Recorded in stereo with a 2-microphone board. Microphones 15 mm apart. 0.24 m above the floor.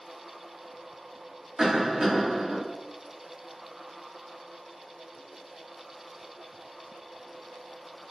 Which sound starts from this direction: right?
A cough, at 1.6 s.